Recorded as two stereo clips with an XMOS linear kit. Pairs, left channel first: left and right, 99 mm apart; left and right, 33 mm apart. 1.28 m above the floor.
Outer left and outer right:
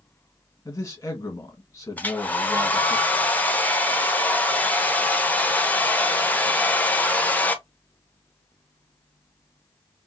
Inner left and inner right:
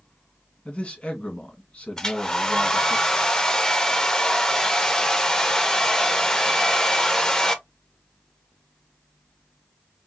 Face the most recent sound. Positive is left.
turn(degrees=15)  # may be behind; listen again after turning